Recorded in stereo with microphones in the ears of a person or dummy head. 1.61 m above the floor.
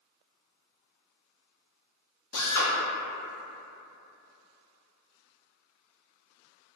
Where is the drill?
65° left (ahead or behind), 0.6 m.